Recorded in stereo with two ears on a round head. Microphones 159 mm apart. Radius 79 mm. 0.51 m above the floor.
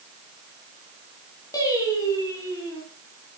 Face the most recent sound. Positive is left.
turn(degrees=20)  # may be behind; listen again after turning